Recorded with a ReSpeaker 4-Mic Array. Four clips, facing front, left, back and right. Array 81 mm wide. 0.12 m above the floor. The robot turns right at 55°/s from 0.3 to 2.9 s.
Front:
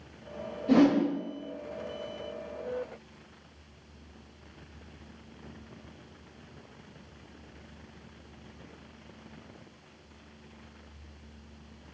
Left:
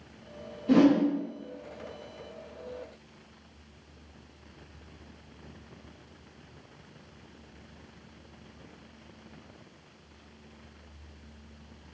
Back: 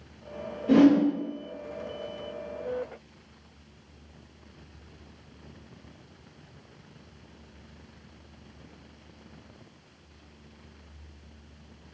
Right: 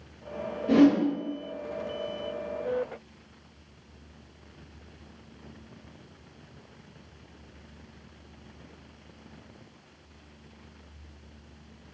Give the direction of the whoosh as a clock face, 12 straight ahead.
6 o'clock.